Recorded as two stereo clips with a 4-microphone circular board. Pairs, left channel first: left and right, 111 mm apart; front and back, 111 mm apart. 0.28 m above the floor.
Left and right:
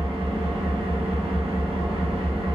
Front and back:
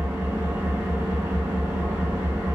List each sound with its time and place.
0.0 s an engine running: 120° right, 0.9 m